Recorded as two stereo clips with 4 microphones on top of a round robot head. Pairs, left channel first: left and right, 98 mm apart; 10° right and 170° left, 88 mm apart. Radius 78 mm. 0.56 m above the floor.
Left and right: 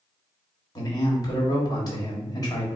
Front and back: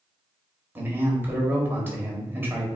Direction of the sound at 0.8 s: 115° left.